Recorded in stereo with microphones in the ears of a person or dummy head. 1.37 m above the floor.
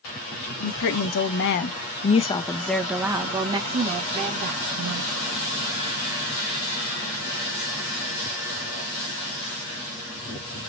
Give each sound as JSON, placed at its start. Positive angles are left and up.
{"t": 0.6, "sound": "a woman speaking", "side_deg": 75, "distance_m": 1.1}